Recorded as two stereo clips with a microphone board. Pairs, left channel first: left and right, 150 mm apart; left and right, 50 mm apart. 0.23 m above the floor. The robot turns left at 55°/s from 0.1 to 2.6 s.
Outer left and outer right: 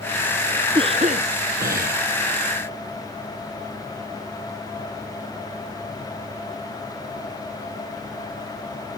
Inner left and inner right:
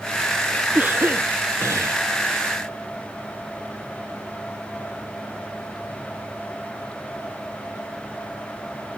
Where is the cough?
35° right; by 2.0 s 100° right.